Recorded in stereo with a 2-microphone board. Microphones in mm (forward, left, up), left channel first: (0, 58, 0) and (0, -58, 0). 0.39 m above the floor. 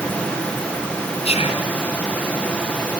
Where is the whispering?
65° left (ahead or behind), 3 m.